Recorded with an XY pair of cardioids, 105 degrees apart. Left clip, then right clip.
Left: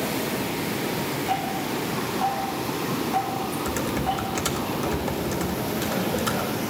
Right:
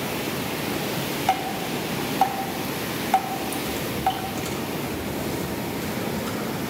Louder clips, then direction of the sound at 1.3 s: Right 4 dB; 55° right.